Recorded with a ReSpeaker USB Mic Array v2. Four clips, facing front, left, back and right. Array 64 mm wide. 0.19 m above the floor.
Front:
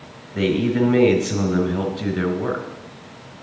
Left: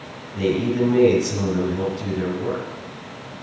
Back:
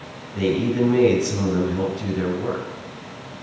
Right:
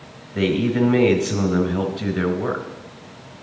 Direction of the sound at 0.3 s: 60° right.